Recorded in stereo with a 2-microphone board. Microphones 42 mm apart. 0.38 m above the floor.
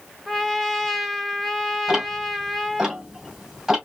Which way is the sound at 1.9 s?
5° right (ahead or behind).